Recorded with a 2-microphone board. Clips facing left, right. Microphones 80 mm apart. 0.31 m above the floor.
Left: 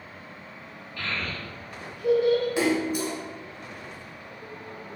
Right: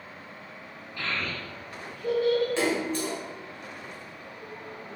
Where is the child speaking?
25° right (ahead or behind), 0.8 m; by 2.5 s 25° left (ahead or behind), 0.9 m.